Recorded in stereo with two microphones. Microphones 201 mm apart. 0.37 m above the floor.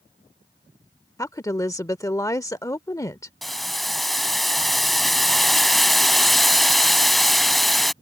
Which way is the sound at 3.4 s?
Centre (ahead or behind).